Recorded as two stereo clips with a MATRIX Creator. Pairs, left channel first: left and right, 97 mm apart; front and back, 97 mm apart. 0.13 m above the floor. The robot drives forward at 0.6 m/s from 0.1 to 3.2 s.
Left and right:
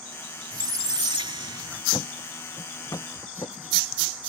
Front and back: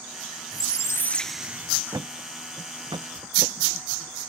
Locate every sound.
0.5 s a squeak: 40° right; by 1.8 s 125° right
1.9 s a thud: 130° left; by 3.7 s 145° left